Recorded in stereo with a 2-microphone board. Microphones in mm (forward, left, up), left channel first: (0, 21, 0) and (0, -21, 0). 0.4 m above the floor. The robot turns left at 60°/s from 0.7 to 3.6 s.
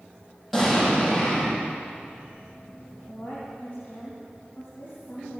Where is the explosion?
175° right, 7 m; by 1.6 s 135° left, 7 m.